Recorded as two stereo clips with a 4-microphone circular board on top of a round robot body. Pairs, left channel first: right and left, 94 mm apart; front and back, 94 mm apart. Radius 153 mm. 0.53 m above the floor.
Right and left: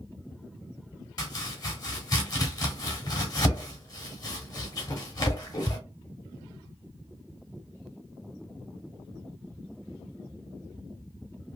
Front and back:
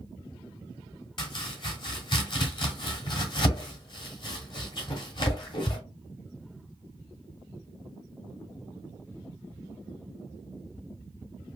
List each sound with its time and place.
1.2 s chopping: 40° right, 1.1 m